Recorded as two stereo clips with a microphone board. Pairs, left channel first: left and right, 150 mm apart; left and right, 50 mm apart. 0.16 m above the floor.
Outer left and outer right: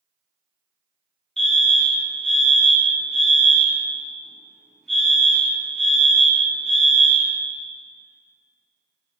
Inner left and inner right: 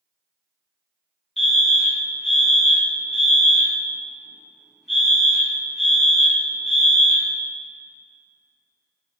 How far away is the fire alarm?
About 4 m.